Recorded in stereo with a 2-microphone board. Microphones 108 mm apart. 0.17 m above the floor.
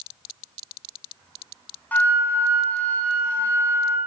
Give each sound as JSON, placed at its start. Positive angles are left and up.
{"t": 1.9, "sound": "a flute", "side_deg": 15, "distance_m": 0.7}